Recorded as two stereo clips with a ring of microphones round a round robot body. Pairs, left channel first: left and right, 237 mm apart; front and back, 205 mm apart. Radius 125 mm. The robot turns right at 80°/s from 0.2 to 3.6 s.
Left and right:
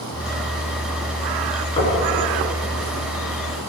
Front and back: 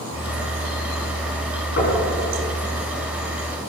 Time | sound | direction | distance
1.8 | knocking | 20° left | 5.5 m